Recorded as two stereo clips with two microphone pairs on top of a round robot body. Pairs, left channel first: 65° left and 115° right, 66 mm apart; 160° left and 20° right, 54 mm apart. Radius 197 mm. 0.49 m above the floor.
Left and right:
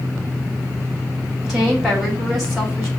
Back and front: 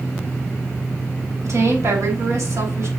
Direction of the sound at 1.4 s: 25° right.